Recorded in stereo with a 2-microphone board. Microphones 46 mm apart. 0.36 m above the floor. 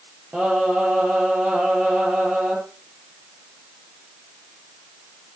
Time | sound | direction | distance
0.3 | singing | 10° right (ahead or behind) | 9 m